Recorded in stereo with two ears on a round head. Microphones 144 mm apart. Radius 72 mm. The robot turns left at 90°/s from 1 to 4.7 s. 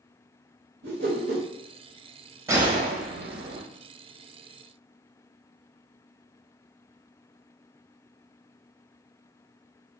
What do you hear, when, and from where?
0.8 s a whoosh: 75° right, 1.2 m; by 1.4 s 115° right, 1.2 m
2.5 s a gunshot: 20° right, 0.7 m; by 3.6 s 125° right, 0.7 m